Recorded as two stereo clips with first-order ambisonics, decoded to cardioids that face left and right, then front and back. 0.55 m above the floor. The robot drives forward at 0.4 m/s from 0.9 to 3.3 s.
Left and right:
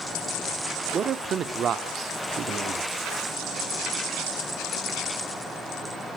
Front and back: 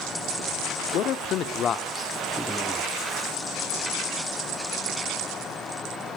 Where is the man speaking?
30° right, 1.0 m; by 2.9 s 100° right, 0.8 m.